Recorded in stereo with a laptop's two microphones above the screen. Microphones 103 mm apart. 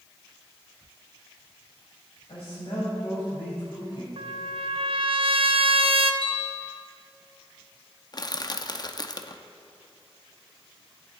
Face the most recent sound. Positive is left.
turn(degrees=40)  # may be behind; listen again after turning